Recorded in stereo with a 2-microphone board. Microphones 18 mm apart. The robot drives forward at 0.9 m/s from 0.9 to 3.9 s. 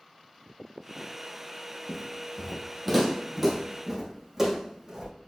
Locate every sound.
1.9 s footsteps: 15° left (ahead or behind), 2.5 m; by 5.1 s 20° right (ahead or behind), 4 m